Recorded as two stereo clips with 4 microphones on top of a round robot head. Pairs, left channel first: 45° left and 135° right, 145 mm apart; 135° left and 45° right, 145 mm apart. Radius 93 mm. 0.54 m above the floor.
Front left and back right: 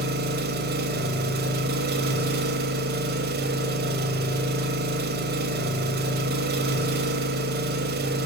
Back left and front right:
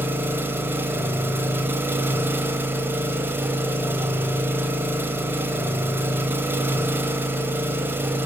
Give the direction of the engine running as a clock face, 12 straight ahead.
4 o'clock.